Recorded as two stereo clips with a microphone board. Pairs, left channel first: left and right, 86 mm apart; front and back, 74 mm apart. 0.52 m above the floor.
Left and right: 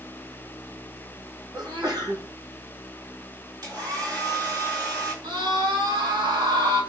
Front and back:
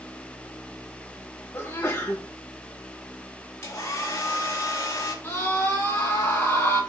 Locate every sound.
1.5 s a sneeze: 60° right, 3.5 m
3.6 s a hair dryer: 50° right, 7.5 m
5.2 s a scream: 60° right, 5 m